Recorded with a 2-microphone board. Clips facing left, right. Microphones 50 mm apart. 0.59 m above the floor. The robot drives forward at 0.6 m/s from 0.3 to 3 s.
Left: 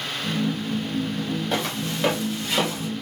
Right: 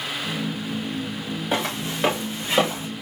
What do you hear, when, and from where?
1.5 s footsteps: 15° right (ahead or behind), 3 m; by 2.9 s 30° right (ahead or behind), 3 m